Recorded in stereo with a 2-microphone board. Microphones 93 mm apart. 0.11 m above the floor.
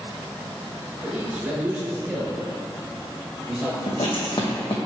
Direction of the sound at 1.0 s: 20° right (ahead or behind).